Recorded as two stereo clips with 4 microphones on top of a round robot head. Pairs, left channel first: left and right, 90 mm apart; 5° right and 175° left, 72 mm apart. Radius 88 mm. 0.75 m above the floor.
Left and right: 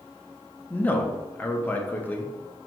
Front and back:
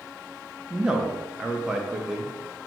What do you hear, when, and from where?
0.7 s a man speaking: 115° left, 0.7 m